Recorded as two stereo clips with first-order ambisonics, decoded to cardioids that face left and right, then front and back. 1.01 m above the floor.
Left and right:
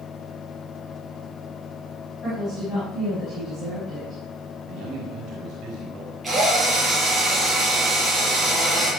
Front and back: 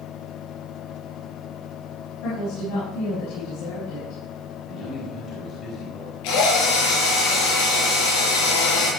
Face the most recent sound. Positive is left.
turn(degrees=-5)